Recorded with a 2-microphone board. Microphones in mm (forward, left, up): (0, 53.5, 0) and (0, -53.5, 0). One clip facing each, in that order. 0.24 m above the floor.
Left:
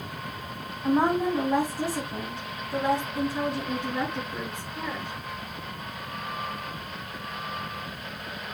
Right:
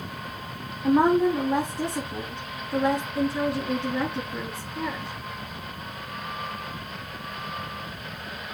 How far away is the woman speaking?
About 2 m.